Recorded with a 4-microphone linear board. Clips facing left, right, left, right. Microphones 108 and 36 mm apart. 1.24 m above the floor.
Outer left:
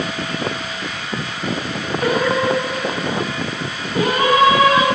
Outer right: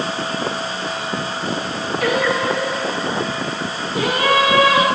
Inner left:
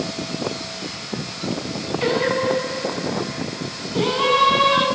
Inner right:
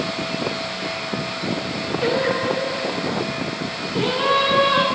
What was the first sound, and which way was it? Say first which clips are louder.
Singing: outer left 1 dB, inner left 1 dB; 45° left (ahead or behind).